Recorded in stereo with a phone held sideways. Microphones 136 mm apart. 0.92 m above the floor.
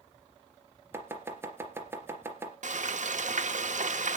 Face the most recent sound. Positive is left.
turn(degrees=-65)  # may be behind; listen again after turning